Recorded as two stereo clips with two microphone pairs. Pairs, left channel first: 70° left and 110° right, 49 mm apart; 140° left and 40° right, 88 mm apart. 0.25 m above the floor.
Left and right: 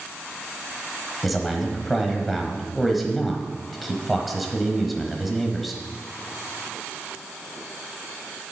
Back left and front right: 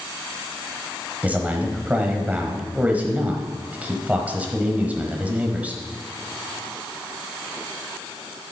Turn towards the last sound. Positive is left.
turn(degrees=-20)